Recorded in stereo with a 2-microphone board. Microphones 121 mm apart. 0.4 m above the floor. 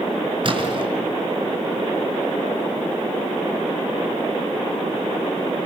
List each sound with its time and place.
0.4 s a splash: 45° right (ahead or behind), 4.5 m